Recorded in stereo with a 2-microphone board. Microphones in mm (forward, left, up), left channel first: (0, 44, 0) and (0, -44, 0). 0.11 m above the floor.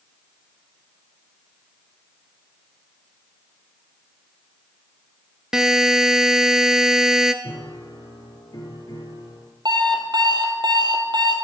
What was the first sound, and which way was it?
A buzzer, 5° right (ahead or behind).